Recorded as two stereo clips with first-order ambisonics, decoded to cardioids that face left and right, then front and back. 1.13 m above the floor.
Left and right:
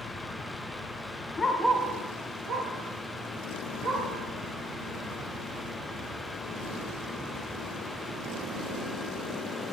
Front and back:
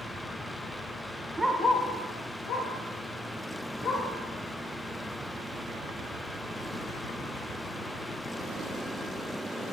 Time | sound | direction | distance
1.4 | a dog barking | 120° left | 0.7 m